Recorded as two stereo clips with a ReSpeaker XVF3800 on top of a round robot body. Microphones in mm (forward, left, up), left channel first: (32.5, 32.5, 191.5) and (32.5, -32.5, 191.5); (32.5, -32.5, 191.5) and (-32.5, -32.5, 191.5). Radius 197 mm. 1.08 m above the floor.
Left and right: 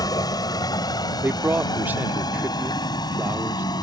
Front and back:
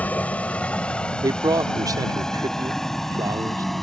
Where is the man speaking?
155° right.